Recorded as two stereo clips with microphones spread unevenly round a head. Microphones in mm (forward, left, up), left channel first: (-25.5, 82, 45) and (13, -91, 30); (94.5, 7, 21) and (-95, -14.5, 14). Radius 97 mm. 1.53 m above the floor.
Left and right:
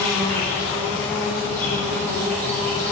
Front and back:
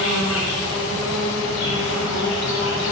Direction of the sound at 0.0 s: 25° left.